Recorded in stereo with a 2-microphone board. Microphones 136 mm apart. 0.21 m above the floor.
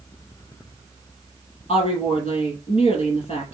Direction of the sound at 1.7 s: 50° left (ahead or behind).